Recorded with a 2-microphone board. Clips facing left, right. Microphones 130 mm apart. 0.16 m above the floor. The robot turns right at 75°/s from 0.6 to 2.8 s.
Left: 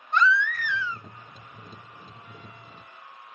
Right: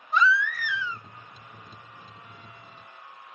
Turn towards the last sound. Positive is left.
turn(degrees=-10)